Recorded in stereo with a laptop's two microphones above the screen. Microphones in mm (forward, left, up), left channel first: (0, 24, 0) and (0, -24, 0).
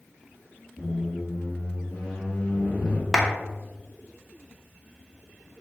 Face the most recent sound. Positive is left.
turn(degrees=0)  # may be behind; listen again after turning